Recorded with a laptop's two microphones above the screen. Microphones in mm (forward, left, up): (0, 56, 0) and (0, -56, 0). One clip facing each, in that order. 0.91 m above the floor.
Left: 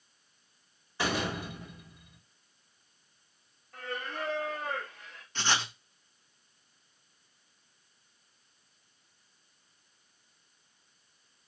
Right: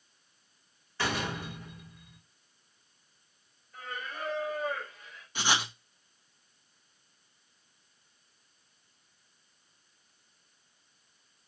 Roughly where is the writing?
Centre.